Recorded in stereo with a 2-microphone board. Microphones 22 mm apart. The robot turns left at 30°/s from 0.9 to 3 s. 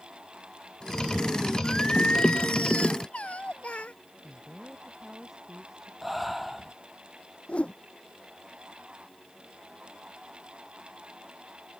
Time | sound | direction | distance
1.6 | singing | 130° left | ?
4.2 | a woman speaking | 10° right (ahead or behind) | ?
6.0 | breathing | 5° right (ahead or behind) | ?
7.5 | a whoosh | 60° left (ahead or behind) | ?